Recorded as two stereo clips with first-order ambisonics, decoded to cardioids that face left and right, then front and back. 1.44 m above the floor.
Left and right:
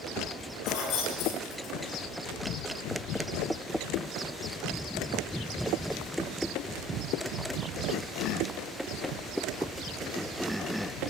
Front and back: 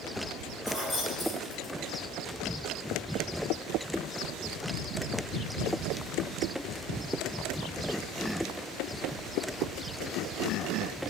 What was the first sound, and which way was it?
Keys jangling, 100° left.